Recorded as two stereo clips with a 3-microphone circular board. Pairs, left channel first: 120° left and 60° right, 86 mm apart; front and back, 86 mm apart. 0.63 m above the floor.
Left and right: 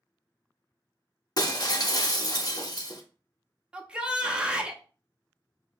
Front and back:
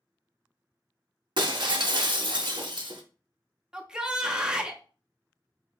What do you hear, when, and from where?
1.4 s breaking glass: 160° left, 0.5 m
3.7 s a shout: 115° right, 0.5 m